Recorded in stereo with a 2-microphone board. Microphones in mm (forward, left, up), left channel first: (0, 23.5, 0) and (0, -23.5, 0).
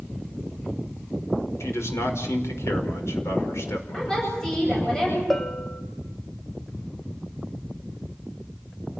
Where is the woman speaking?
10° left (ahead or behind), 9.5 m.